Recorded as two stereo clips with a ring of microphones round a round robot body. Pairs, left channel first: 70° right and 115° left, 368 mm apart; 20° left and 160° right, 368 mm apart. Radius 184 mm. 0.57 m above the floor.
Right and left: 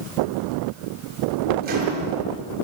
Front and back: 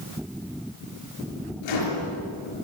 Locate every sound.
1.6 s a microwave: 45° left, 8 m